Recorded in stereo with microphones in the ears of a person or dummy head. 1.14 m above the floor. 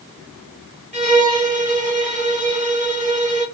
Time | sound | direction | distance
0.9 | a violin | 35° right (ahead or behind) | 1.3 m